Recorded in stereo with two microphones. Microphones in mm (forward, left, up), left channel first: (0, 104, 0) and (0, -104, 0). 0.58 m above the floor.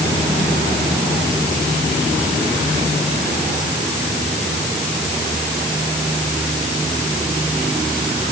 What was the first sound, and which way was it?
Only background noise.